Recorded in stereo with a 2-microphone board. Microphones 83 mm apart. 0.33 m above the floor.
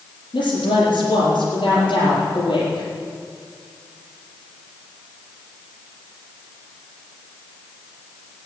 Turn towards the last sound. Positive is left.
turn(degrees=65)  # may be behind; listen again after turning